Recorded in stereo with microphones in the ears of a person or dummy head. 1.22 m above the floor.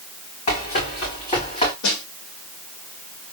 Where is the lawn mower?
No lawn mower in this recording.